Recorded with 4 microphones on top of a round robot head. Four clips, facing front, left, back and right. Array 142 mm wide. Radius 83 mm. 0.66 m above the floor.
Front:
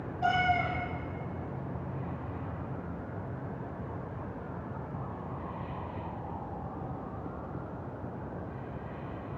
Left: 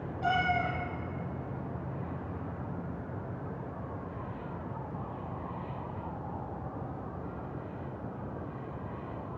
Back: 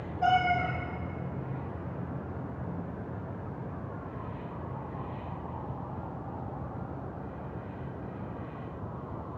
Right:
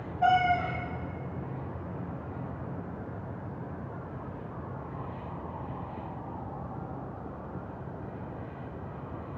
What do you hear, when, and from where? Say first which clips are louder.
0.2 s a cat meowing: right 5 dB, back 2 dB; 110° right, 7 m